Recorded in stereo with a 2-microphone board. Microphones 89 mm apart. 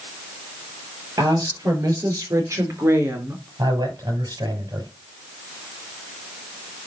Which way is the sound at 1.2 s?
45° right (ahead or behind).